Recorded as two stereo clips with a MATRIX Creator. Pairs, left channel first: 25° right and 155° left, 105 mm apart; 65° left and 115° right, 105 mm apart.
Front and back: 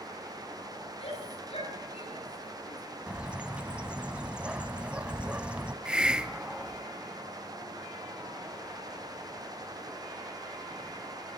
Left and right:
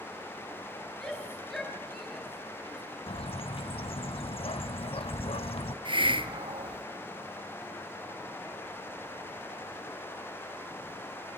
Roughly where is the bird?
Left.